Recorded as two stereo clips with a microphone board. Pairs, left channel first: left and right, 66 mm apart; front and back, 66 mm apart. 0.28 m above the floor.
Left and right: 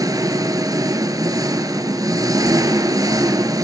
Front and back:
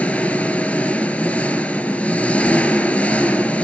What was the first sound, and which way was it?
An engine running, 70° right.